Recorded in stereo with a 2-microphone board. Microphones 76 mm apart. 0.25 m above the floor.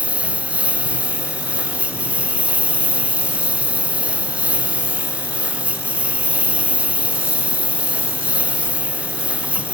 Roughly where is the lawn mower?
Centre.